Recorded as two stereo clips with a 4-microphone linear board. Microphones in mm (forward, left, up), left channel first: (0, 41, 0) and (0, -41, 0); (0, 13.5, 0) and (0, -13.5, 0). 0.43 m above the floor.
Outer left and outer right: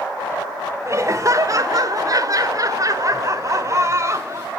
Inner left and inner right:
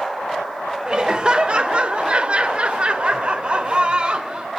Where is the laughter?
40° right (ahead or behind), 1.3 m; by 4.5 s 35° right (ahead or behind), 2 m.